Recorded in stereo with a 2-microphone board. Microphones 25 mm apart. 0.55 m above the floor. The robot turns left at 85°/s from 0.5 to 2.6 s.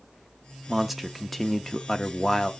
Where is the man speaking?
15° right (ahead or behind), 0.6 m; by 2.5 s 20° left (ahead or behind), 0.6 m.